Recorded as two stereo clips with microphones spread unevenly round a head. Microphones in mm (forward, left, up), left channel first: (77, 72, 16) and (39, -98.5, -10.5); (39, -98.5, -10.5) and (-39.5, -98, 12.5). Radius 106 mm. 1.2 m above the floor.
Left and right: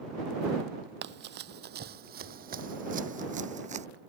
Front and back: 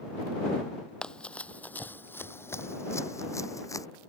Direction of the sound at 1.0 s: 90° right.